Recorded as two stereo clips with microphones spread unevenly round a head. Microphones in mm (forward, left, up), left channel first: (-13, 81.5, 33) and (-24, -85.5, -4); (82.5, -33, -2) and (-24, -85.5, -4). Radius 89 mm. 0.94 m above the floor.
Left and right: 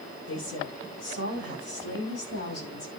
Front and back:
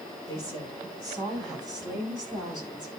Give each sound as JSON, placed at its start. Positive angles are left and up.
{"t": 0.3, "sound": "a woman speaking", "azimuth_deg": 90, "distance_m": 8.5}